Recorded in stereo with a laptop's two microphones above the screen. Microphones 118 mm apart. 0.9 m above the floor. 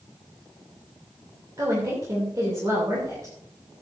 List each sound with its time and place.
1.6 s a woman speaking: 30° right (ahead or behind), 2.5 m